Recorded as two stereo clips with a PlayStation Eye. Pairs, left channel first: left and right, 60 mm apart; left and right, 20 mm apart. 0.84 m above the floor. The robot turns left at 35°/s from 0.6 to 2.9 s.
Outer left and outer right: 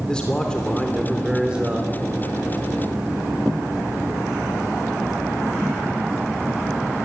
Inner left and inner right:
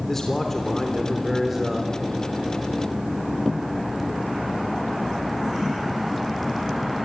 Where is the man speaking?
15° left, 3 m; by 1.9 s 30° right, 3 m.